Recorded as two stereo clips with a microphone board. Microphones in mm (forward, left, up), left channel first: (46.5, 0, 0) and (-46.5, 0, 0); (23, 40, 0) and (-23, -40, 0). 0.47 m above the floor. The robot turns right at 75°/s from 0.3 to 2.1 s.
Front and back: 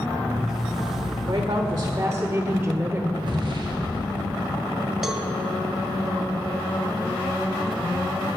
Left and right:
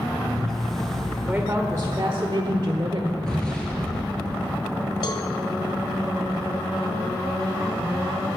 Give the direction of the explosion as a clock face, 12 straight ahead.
7 o'clock.